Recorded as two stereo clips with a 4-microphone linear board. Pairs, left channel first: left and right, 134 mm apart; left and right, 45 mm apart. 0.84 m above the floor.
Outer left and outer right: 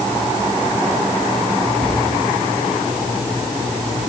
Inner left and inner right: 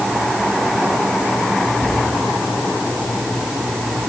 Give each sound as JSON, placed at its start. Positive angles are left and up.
{"t": 1.8, "sound": "a cupboard door", "side_deg": 30, "distance_m": 7.0}